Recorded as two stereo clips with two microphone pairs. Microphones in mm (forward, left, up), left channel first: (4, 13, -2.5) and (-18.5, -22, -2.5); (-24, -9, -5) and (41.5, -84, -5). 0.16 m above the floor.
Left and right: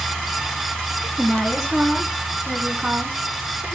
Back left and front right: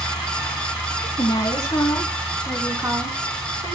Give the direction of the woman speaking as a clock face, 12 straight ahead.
7 o'clock.